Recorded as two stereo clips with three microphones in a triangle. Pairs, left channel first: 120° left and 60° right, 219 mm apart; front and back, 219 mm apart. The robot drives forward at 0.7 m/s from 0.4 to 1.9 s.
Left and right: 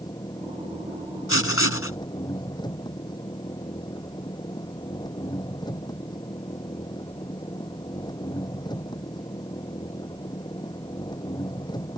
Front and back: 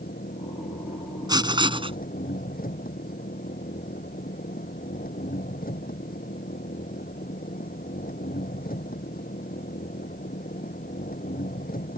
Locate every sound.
0.0 s an engine running: 45° left; by 12.0 s 50° left
1.3 s writing: 110° left; by 2.0 s 115° left